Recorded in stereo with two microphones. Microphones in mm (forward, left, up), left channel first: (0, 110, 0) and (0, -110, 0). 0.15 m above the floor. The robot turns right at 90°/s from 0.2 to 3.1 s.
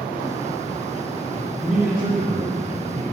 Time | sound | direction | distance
1.6 | a man speaking | 175° left | 1.8 m